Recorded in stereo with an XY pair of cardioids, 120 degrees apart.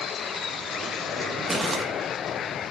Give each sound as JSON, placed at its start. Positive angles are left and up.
{"t": 1.5, "sound": "crumpling", "azimuth_deg": -10, "distance_m": 2.0}